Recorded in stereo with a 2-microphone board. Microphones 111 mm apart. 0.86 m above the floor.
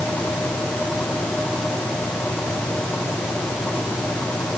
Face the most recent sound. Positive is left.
No sound to turn to.